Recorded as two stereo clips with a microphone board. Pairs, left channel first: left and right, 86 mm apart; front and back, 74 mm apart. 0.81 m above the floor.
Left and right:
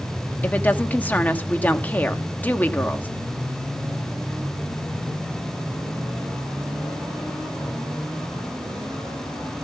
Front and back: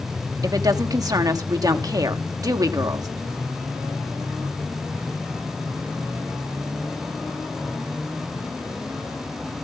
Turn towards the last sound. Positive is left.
turn(degrees=155)